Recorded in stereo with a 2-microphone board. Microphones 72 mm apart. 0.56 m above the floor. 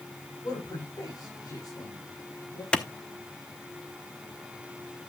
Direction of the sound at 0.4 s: 60° left (ahead or behind).